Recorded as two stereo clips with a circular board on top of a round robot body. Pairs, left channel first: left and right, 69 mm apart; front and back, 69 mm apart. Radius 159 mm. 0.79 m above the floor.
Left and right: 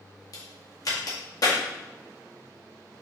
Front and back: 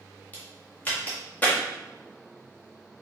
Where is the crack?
65° left, 1.8 m.